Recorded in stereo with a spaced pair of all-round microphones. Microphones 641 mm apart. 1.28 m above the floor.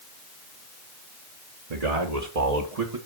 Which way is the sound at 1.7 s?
75° right (ahead or behind).